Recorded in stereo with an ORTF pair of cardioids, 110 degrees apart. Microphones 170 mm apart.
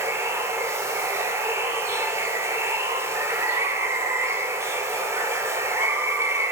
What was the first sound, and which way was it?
Running water, 15° right.